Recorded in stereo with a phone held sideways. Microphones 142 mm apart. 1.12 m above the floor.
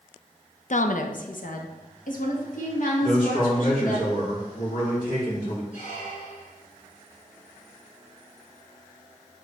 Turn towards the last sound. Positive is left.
turn(degrees=60)  # may be behind; listen again after turning